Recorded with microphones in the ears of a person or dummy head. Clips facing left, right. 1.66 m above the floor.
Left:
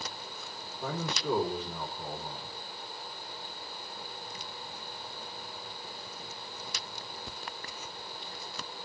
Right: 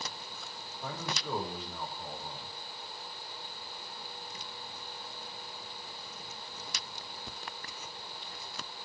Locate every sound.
0.8 s a man speaking: 60° left (ahead or behind), 3.5 m